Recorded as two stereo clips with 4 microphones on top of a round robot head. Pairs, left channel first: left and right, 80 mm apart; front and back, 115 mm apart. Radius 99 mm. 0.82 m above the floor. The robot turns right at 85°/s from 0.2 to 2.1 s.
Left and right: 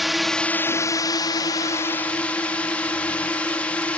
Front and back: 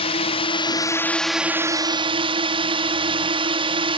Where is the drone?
Straight ahead; by 4.0 s 160° left.